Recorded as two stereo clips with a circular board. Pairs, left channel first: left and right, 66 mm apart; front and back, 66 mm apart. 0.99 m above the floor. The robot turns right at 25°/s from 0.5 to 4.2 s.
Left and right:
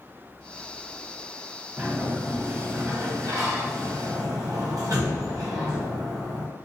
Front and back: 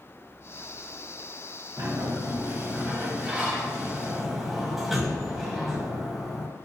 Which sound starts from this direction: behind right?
A sliding door, at 1.8 s.